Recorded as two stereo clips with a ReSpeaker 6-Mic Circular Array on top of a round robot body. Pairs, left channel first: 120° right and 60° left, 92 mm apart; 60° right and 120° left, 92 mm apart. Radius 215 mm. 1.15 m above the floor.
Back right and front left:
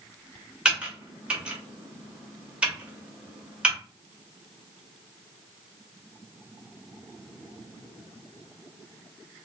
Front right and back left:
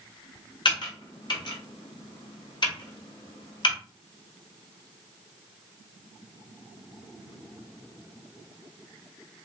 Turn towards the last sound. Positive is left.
turn(degrees=-20)